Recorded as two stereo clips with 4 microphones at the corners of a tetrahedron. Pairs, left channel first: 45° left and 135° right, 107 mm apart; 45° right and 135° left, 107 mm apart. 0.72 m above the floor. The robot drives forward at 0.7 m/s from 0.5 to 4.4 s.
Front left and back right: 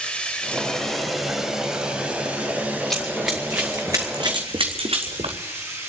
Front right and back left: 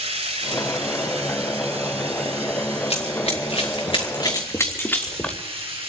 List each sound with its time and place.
0.0 s running water: 125° left, 1.6 m; by 5.9 s 160° left, 4 m
2.9 s running footsteps: 45° right, 3.5 m; by 5.4 s 130° right, 2.5 m